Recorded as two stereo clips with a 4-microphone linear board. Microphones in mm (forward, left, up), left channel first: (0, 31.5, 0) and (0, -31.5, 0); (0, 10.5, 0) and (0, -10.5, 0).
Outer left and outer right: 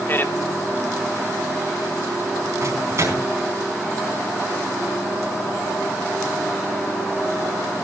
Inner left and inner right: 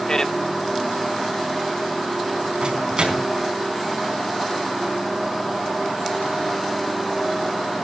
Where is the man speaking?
35° left (ahead or behind), 0.8 m.